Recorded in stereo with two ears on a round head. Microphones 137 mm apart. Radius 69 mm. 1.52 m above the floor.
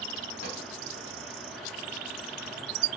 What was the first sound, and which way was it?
A pop, 55° left (ahead or behind).